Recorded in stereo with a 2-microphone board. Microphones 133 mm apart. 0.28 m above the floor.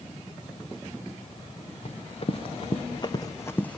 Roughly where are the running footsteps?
Left.